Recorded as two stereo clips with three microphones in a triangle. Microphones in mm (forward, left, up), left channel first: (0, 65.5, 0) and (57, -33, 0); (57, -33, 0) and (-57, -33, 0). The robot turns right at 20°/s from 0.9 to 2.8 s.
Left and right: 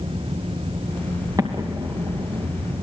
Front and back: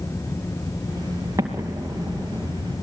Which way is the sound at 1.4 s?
115° right.